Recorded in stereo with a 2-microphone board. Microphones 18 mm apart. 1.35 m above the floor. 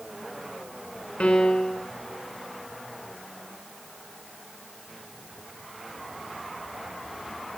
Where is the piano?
85° left, 3.5 m.